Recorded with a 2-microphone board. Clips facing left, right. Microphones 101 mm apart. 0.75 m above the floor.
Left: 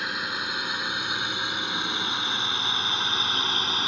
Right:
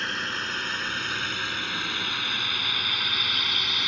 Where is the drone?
10° left (ahead or behind); by 3.9 s 35° left (ahead or behind).